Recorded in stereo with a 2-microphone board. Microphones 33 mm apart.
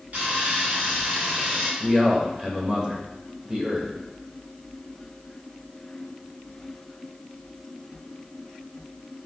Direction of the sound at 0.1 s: 45° right (ahead or behind).